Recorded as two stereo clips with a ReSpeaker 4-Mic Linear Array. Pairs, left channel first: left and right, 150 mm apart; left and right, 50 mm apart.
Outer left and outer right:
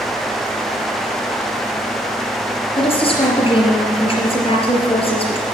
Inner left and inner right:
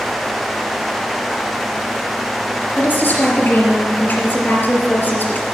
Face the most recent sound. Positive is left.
turn(degrees=40)  # may be behind; listen again after turning